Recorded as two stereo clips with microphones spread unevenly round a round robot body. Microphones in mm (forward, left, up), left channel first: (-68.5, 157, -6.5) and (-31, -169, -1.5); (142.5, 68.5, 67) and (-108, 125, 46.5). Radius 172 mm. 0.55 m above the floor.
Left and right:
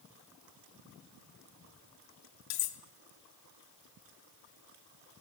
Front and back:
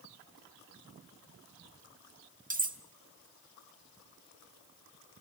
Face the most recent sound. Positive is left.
turn(degrees=110)